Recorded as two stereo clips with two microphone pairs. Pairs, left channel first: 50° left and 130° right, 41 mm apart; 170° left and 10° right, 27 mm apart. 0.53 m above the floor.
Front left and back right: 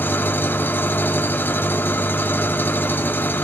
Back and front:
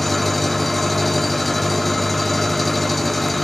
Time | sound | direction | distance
0.0 | an engine running | 80° left | 1.0 m